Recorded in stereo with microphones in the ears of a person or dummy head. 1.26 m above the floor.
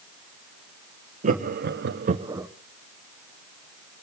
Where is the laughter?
40° right (ahead or behind), 1.2 m; by 2.5 s 5° right (ahead or behind), 0.8 m.